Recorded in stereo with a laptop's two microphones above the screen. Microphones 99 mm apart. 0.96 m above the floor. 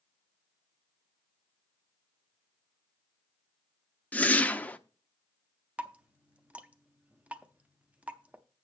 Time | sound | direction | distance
4.1 | a whoosh | 15° left (ahead or behind) | 0.6 m
5.8 | dripping | 15° right (ahead or behind) | 0.5 m